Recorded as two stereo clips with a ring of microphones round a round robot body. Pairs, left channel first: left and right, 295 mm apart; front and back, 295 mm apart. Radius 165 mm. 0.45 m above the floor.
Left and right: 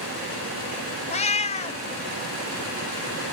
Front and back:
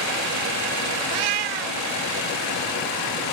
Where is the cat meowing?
160° left, 1.0 m.